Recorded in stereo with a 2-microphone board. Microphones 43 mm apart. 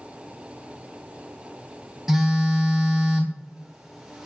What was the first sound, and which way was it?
A phone buzzing, 10° right (ahead or behind).